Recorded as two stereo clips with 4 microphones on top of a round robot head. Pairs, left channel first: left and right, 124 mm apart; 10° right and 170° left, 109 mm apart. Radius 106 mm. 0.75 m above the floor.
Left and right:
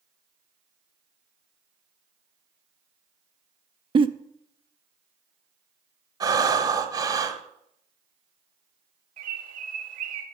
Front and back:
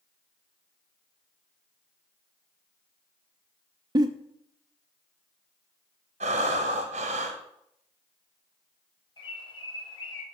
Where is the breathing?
150° right, 1.0 m.